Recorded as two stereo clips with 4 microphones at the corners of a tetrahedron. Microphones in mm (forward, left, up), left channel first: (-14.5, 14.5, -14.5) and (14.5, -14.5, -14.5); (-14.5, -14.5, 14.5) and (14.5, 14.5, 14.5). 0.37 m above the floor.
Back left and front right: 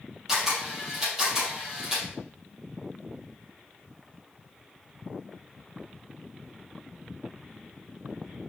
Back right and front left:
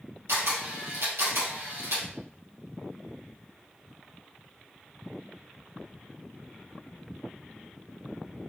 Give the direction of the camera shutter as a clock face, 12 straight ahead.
11 o'clock.